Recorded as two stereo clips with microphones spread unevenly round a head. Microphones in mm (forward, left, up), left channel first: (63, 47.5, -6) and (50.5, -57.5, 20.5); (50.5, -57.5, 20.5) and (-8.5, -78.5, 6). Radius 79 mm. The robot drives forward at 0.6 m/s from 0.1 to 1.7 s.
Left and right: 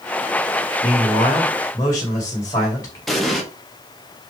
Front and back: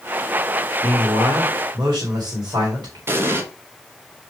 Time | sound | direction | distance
0.8 | a man speaking | 145° left | 1.6 m
3.1 | an explosion | 150° right | 1.0 m